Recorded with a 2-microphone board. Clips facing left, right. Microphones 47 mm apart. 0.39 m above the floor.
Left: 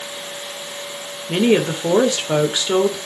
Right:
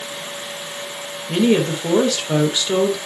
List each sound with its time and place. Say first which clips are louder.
1.3 s a woman speaking: even; 20° left (ahead or behind), 1.2 m